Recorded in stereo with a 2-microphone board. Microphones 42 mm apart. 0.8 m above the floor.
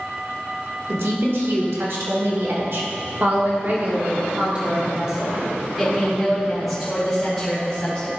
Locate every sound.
0.9 s a woman speaking: 80° right, 2 m; by 8.1 s 15° left (ahead or behind), 2.5 m